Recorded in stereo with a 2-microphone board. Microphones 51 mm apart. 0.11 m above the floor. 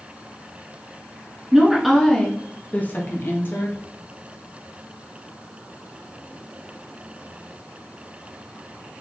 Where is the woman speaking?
10° right (ahead or behind), 1.1 m; by 3.8 s 50° left (ahead or behind), 1.7 m.